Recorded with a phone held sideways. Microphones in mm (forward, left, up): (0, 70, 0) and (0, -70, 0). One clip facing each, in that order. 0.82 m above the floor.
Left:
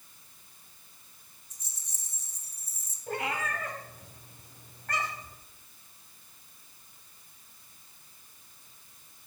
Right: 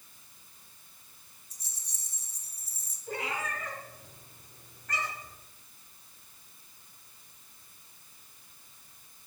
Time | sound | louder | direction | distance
1.5 | a rattle | even | 30° right (ahead or behind) | 2 m
3.1 | a cat meowing | left 2 dB | 60° left (ahead or behind) | 3 m